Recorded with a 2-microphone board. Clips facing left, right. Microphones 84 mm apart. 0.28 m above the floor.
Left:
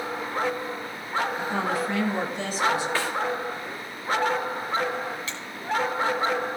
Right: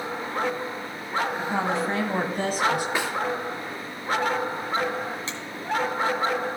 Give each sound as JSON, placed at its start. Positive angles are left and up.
{"t": 1.4, "sound": "a woman speaking", "side_deg": -10, "distance_m": 1.3}
{"t": 3.0, "sound": "a snare drum", "side_deg": -20, "distance_m": 2.5}
{"t": 5.3, "sound": "a finger snap", "side_deg": -30, "distance_m": 2.0}